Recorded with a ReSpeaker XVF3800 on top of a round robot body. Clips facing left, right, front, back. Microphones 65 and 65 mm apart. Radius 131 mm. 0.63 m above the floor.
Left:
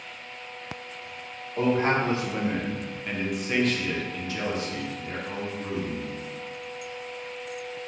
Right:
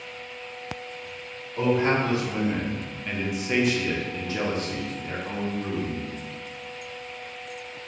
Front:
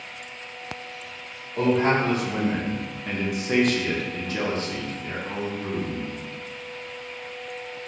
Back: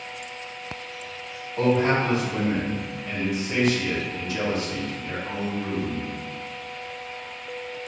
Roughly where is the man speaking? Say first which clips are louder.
Right 1 dB, even; ahead left.